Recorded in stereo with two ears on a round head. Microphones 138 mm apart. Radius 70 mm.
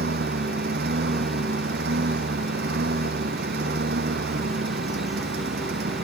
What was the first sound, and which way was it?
A lawn mower, 75° right (ahead or behind).